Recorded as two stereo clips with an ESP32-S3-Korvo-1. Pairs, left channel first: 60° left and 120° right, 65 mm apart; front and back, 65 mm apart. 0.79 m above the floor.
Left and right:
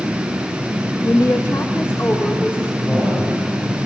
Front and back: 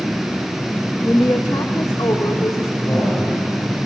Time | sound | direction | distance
1.0 | a woman speaking | 45° left | 0.8 m
2.9 | a man speaking | 20° right | 6.5 m